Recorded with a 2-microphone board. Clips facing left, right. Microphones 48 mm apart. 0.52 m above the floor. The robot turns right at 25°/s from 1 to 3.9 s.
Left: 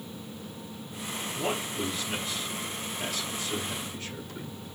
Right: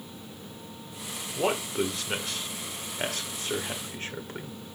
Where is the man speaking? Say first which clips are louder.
Right 5 dB; 50° right (ahead or behind), 2.0 m; by 4.5 s 35° right (ahead or behind), 2.0 m.